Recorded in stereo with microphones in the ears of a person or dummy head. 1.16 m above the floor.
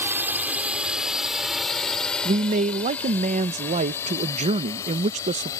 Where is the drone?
10° right (ahead or behind); by 5.6 s 20° left (ahead or behind).